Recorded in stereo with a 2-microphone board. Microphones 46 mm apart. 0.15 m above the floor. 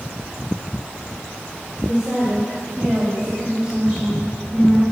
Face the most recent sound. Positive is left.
turn(degrees=-20)  # may be behind; listen again after turning